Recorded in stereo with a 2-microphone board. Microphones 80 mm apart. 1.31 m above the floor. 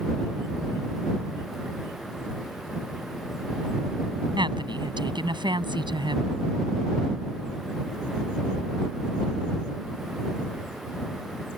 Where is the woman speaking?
70° right (ahead or behind).